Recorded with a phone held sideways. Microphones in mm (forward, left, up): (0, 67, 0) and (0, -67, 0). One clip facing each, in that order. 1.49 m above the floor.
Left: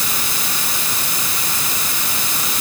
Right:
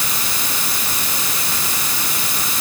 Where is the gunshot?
No gunshot in this recording.